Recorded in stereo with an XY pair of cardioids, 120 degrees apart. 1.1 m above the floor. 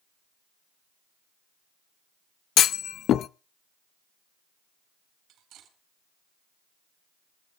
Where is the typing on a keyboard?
I don't hear typing on a keyboard.